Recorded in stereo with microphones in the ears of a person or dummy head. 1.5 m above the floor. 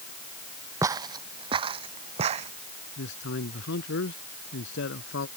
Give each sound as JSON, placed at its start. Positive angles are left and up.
{"t": 0.8, "sound": "footsteps", "side_deg": -15}
{"t": 3.0, "sound": "a man speaking", "side_deg": 65}